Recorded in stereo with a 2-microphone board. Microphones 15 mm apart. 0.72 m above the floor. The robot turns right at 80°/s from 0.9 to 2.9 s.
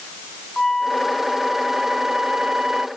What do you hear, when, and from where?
0.6 s a flute: 145° left; by 2.9 s 60° right